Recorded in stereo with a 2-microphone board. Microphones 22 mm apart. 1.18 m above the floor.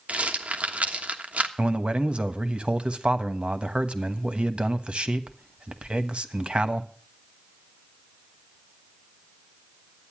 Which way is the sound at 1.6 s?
50° right (ahead or behind).